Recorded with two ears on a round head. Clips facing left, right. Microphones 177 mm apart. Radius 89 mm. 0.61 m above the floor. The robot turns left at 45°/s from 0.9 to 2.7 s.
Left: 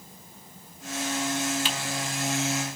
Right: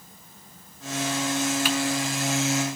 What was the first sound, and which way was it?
Typing on a keyboard, 25° left (ahead or behind).